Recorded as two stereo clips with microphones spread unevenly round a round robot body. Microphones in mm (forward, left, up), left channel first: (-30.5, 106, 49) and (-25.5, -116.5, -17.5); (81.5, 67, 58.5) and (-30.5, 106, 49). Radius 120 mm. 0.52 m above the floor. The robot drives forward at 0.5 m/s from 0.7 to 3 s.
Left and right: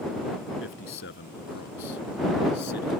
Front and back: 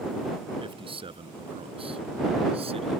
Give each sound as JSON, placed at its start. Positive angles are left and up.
{"t": 0.6, "sound": "a man speaking", "azimuth_deg": 120}